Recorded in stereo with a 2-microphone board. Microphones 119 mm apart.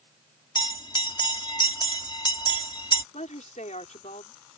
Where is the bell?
40° left (ahead or behind).